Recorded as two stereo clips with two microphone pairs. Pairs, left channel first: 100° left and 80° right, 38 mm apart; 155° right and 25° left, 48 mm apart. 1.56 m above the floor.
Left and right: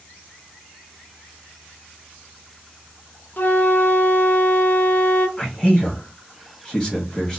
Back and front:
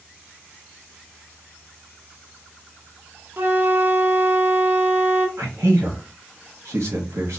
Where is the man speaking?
30° left, 0.9 m.